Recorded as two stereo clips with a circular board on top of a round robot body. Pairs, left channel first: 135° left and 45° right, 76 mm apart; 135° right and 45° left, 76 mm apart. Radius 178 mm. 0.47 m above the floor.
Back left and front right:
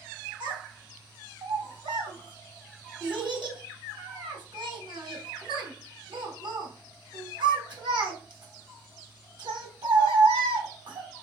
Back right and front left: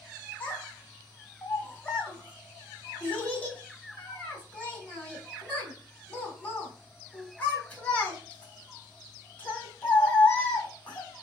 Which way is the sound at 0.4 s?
65° right.